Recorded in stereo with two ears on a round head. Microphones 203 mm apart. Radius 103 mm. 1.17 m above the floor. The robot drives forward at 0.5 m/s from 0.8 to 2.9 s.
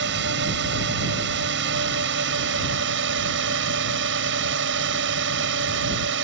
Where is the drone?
50° right (ahead or behind); by 6.2 s 55° right (ahead or behind).